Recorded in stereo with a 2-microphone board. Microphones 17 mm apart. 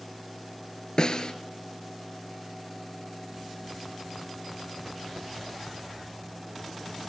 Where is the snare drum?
55° left (ahead or behind), 1.8 m.